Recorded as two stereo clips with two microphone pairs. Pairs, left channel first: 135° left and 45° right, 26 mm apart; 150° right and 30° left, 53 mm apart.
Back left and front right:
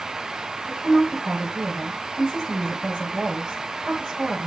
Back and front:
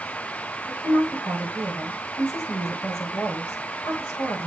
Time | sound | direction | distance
0.7 | a woman speaking | 110° right | 4 m